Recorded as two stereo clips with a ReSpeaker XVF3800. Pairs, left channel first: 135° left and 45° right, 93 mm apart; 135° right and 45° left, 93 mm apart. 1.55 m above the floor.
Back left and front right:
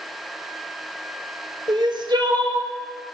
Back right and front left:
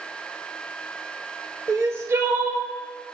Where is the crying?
10° right, 0.6 m.